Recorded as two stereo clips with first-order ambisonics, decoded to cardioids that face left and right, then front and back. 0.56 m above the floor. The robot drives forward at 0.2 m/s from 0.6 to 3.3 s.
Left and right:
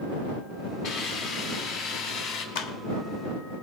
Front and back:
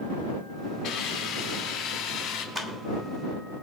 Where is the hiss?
50° left, 2.5 m; by 2.5 s 60° left, 2 m.